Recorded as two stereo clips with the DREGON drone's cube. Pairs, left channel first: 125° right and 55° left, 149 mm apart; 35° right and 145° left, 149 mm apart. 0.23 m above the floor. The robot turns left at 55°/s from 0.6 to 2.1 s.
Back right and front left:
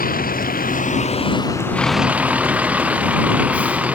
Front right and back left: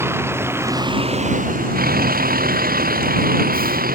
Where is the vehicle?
140° right; by 4.0 s 135° left.